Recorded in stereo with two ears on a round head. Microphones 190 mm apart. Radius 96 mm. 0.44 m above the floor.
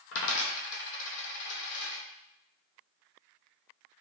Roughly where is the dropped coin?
Left.